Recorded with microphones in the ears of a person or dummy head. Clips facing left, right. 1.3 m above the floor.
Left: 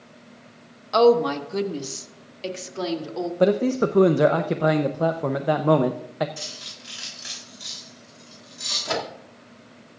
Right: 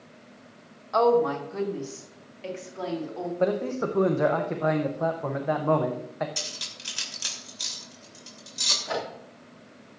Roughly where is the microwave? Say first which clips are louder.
Left 3 dB; left.